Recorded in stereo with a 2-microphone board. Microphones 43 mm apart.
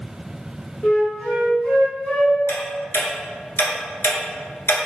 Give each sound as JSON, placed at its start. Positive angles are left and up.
{"t": 0.8, "sound": "a flute", "side_deg": 25, "distance_m": 1.5}
{"t": 2.5, "sound": "ticking", "side_deg": 75, "distance_m": 1.0}